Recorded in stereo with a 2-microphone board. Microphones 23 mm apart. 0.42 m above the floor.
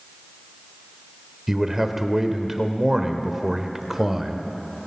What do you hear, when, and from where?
1.5 s a man speaking: 20° right (ahead or behind), 1.1 m